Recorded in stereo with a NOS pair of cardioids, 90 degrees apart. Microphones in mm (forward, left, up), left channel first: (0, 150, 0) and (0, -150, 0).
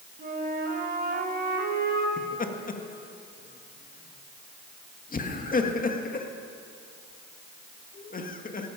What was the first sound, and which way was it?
A flute, 35° right.